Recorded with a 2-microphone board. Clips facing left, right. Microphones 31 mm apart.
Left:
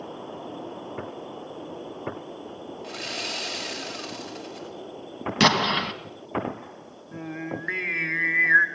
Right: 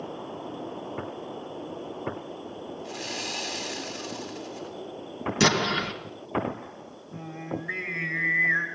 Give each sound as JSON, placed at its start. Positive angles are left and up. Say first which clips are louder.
{"t": 2.8, "sound": "sawing", "louder": "left 3 dB", "side_deg": 60, "distance_m": 7.0}
{"t": 5.4, "sound": "an explosion", "louder": "left 3 dB", "side_deg": 40, "distance_m": 2.5}
{"t": 7.1, "sound": "singing", "louder": "left 2 dB", "side_deg": 70, "distance_m": 2.5}